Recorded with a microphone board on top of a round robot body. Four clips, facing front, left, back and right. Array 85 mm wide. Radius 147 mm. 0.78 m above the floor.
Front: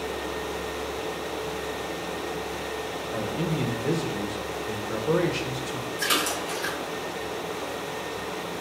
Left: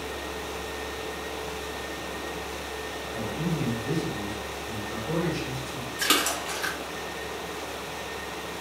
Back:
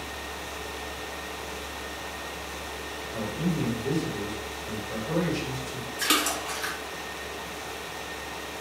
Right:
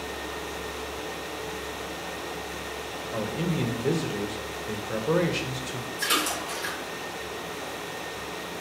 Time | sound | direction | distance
3.1 | a man speaking | 55° right | 1.0 m
6.0 | a splash | 120° left | 2.0 m